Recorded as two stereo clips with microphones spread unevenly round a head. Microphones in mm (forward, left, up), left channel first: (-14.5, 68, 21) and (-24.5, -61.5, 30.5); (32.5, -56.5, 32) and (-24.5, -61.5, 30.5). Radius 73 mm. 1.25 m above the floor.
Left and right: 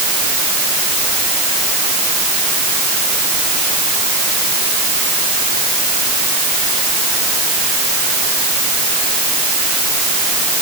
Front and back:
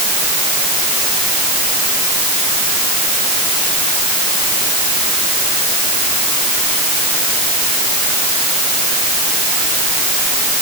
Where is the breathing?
No breathing in this recording.